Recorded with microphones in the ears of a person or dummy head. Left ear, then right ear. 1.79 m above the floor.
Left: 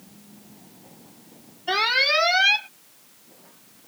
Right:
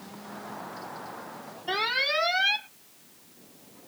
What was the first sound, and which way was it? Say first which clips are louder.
An alarm: left 6 dB; 15° left (ahead or behind).